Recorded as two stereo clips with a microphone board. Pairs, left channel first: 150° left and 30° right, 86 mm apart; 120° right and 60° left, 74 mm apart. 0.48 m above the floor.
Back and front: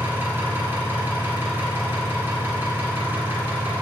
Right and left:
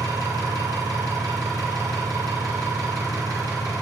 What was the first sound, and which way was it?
An engine running, 35° left.